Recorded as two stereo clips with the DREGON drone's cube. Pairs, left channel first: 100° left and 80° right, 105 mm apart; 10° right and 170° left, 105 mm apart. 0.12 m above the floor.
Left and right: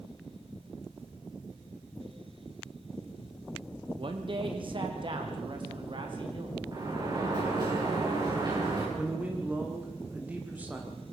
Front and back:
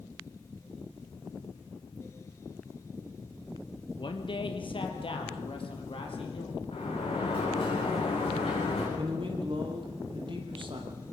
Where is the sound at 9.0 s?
155° right, 4.5 m.